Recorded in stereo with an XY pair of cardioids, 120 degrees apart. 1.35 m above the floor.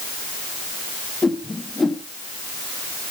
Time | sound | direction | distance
1.2 | a whoosh | 15° left | 2 m